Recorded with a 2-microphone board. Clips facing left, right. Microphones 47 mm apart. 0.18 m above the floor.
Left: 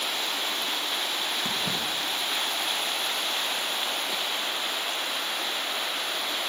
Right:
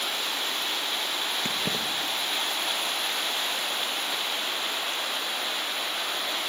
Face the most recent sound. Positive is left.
turn(degrees=-60)  # may be behind; listen again after turning